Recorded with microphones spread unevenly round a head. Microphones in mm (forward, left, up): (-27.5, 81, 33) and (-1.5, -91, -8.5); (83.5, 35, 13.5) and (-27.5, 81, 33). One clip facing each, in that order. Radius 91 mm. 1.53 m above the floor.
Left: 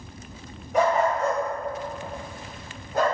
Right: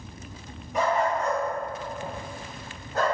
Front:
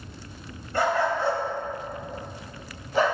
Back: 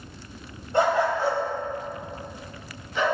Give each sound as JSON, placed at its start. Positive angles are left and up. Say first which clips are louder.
{"t": 0.7, "sound": "a dog barking", "louder": "left 3 dB, back 2 dB", "azimuth_deg": 95, "distance_m": 3.0}